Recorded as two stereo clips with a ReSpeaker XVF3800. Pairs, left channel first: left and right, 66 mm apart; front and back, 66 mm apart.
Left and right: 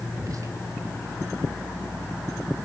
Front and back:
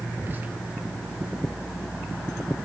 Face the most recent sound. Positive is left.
turn(degrees=-120)